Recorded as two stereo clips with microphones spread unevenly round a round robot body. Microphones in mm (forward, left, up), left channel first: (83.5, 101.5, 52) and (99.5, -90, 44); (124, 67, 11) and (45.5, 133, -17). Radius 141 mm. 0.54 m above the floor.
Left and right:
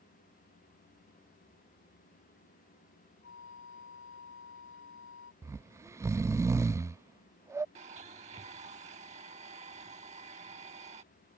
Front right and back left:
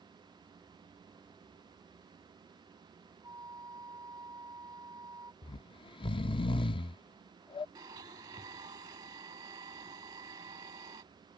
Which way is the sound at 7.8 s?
150° right.